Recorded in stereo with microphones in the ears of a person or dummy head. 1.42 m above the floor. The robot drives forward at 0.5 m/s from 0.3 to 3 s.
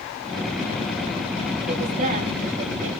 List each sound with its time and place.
1.7 s a woman speaking: 45° right (ahead or behind), 3 m; by 3.0 s 40° right (ahead or behind), 3.5 m